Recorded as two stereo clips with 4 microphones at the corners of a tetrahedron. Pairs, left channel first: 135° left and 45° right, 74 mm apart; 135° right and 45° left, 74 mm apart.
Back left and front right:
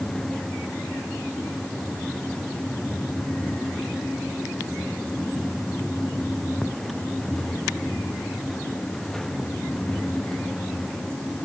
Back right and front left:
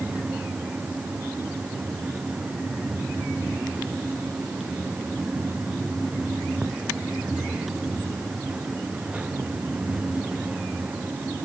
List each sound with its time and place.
Only background noise.